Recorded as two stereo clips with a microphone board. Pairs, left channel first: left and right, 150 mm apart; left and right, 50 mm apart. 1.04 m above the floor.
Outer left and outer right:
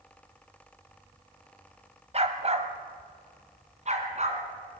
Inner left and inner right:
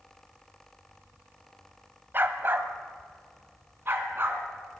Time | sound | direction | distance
2.1 | a dog barking | 45° right (ahead or behind) | 1.4 m